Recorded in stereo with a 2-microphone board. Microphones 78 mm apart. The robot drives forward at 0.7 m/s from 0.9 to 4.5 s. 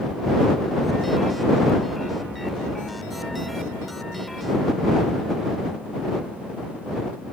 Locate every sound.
Only background noise.